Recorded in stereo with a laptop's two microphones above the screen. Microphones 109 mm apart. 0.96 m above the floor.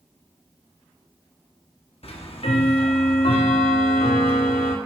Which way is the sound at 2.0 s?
65° left (ahead or behind).